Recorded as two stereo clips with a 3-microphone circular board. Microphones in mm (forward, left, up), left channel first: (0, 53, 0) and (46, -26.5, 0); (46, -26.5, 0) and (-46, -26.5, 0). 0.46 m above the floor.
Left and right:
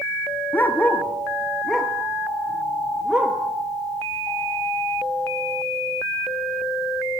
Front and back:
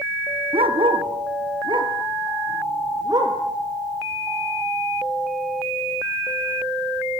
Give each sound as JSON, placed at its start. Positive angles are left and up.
{"t": 0.5, "sound": "a dog barking", "azimuth_deg": -170, "distance_m": 2.5}